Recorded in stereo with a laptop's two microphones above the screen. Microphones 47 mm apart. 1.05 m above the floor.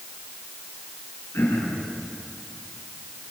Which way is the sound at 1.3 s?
70° left (ahead or behind).